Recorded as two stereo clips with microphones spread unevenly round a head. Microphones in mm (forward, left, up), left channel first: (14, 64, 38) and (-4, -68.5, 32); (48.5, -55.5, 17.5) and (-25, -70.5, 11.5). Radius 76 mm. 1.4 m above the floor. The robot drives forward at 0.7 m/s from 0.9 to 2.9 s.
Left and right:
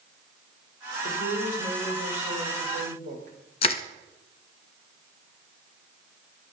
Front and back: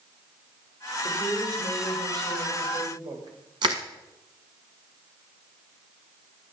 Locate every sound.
1.0 s a woman speaking: 130° right, 4.5 m; by 3.4 s 140° right, 5.5 m
3.6 s crushing: 135° left, 1.0 m